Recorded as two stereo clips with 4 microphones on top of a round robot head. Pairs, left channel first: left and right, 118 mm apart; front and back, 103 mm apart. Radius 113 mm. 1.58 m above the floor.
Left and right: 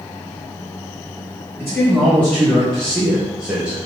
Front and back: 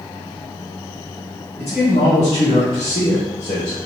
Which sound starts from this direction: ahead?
A man speaking, at 1.6 s.